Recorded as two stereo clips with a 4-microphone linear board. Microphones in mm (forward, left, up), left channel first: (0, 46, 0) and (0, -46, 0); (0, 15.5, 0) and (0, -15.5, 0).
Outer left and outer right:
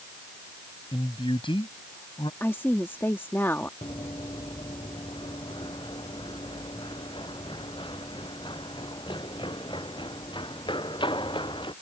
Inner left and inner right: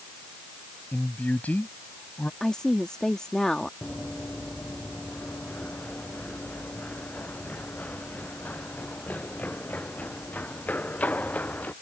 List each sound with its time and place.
0.9 s a man speaking: 75° left (ahead or behind); by 2.3 s 70° left (ahead or behind)
2.4 s a woman speaking: 25° left (ahead or behind)
3.8 s running footsteps: 60° left (ahead or behind); by 11.7 s 70° left (ahead or behind)